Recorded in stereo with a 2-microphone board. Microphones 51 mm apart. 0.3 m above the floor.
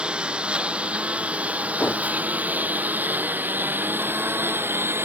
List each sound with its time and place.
0.0 s a lawn mower: 20° right (ahead or behind); by 5.0 s 50° right (ahead or behind)
1.8 s a whoosh: 35° left (ahead or behind)